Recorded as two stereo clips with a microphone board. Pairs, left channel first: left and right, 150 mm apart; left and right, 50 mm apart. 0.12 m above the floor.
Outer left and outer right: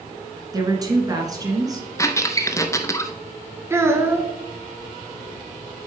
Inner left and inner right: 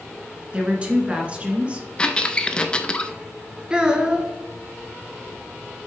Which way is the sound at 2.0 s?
20° left (ahead or behind).